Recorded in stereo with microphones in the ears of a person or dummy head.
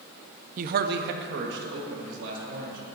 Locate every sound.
0.6 s a man speaking: 40° right (ahead or behind), 0.6 m; by 2.8 s 65° right (ahead or behind), 4 m